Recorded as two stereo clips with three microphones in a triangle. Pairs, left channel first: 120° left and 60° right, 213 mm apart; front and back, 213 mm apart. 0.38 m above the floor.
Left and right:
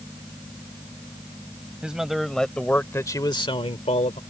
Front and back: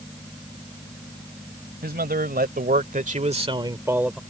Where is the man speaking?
145° right; by 4.2 s 95° left.